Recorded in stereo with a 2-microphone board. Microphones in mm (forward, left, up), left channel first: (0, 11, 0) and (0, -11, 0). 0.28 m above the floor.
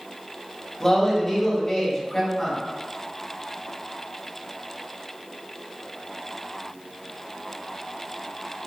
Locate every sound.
0.8 s a man speaking: 25° left (ahead or behind), 1.5 m